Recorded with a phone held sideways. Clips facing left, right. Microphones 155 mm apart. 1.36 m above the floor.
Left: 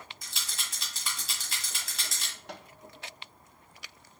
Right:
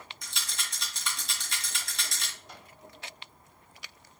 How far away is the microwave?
About 0.7 m.